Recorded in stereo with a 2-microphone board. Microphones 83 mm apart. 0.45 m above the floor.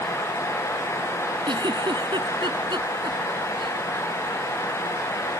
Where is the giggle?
75° right (ahead or behind).